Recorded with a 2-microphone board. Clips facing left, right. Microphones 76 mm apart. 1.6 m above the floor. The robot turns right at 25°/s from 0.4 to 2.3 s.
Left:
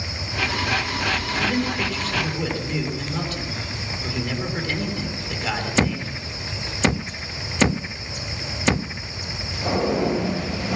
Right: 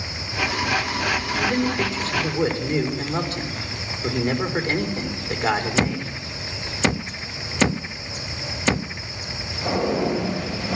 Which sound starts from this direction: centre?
A man speaking, at 1.4 s.